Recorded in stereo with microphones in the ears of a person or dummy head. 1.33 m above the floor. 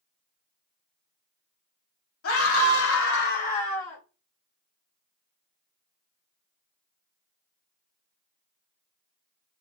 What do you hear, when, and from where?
2.2 s a scream: 85° left, 1.4 m; by 4.0 s 10° left (ahead or behind), 1.0 m